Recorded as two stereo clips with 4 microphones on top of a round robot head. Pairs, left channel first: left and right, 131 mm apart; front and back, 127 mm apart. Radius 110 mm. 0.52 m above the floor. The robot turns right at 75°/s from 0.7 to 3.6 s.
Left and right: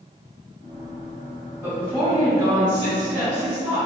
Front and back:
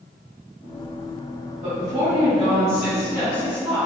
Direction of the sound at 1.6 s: 155° left.